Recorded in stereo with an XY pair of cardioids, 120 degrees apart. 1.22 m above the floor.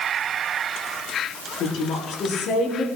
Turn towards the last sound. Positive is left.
turn(degrees=55)